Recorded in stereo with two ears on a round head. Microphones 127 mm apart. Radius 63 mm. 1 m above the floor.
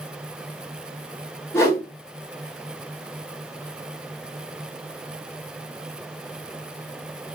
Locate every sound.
1.5 s a whoosh: 20° left (ahead or behind), 2 m